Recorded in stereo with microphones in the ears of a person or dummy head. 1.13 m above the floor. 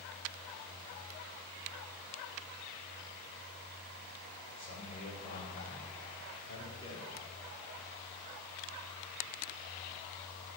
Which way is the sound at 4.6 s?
45° left (ahead or behind).